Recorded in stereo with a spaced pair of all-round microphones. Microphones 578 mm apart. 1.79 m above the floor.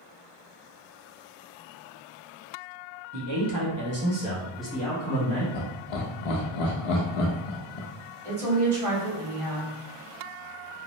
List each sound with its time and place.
3.1 s a man speaking: 45° right (ahead or behind), 0.8 m; by 5.4 s 20° left (ahead or behind), 1.1 m
5.5 s laughter: 70° left (ahead or behind), 0.6 m
8.2 s a woman speaking: 60° right (ahead or behind), 1.5 m